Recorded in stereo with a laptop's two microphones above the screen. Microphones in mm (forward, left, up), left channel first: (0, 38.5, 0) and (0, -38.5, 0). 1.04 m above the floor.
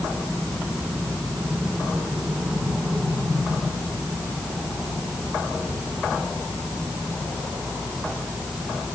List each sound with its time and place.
Only background noise.